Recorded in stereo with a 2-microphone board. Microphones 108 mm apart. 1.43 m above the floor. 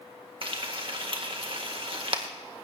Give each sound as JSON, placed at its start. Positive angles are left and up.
{"t": 0.4, "sound": "frying", "side_deg": -55, "distance_m": 1.8}